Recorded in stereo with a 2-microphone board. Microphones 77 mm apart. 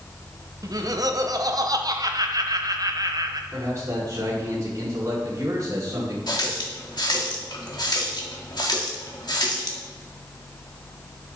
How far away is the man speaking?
About 4.5 m.